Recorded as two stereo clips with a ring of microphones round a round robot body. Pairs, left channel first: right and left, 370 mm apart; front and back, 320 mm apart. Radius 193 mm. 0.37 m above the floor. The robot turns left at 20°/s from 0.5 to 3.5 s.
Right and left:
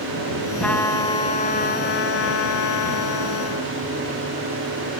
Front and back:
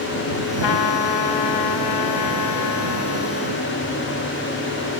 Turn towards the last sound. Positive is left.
turn(degrees=-60)